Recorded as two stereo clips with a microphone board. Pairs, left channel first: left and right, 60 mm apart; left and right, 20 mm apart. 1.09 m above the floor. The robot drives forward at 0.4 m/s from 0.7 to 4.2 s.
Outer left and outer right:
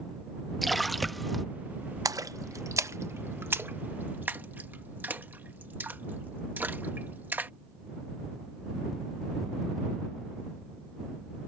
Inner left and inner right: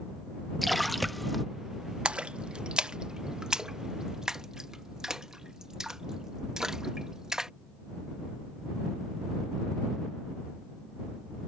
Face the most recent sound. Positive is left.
turn(degrees=-35)  # may be behind; listen again after turning